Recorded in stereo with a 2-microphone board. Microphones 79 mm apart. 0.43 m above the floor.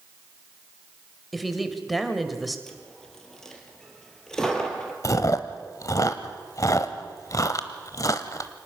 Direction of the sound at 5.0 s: 45° left (ahead or behind).